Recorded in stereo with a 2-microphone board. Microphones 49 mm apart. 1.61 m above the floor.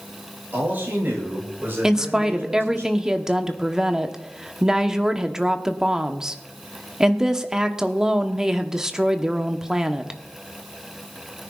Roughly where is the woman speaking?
Centre.